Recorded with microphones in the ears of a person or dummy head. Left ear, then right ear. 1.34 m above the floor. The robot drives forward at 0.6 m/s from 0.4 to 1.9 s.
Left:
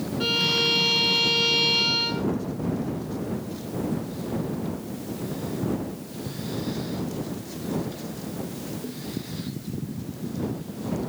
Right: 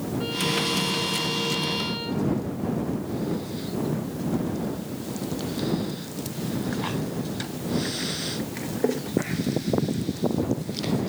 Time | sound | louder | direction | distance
0.2 | a violin | left 5 dB | 70° left (ahead or behind) | ?